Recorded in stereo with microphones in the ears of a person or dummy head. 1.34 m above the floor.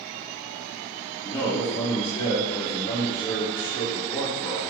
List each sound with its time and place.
1.2 s a man speaking: 50° left (ahead or behind), 1.5 m